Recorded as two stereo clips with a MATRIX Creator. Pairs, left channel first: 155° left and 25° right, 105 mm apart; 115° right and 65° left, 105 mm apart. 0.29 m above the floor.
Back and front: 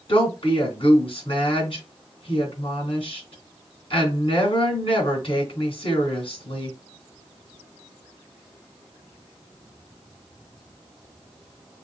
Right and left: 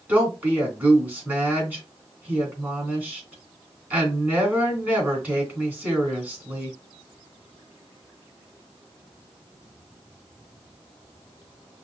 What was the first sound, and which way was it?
A woman speaking, 140° left.